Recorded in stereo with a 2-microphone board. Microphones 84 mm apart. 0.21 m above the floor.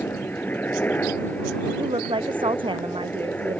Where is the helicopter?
20° left (ahead or behind).